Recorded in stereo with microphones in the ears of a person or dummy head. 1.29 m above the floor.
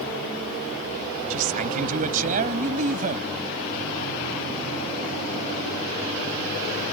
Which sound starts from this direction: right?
A man speaking, at 1.3 s.